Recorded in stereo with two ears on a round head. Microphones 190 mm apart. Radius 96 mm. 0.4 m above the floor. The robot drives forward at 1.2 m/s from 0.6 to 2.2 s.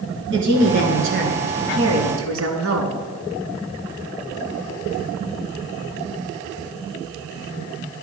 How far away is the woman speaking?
About 4.5 m.